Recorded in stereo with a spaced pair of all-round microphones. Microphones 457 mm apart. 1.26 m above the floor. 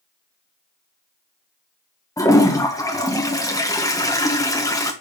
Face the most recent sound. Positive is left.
turn(degrees=5)  # may be behind; listen again after turning